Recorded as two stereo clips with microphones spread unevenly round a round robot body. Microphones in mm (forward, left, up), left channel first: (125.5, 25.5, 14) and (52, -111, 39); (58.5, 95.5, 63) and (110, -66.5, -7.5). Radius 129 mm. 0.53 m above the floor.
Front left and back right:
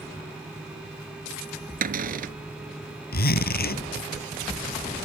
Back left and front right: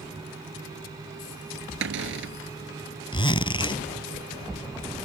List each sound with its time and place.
1.8 s a cupboard door: 95° right
3.1 s a zipper: 45° left